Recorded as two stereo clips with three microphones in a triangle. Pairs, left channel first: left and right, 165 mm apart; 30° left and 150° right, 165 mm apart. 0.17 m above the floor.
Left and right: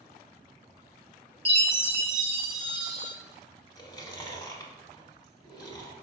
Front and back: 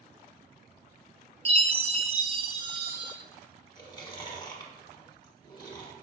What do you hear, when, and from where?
1.4 s a chime: 120° right, 2.0 m
3.8 s chewing: 55° left, 1.1 m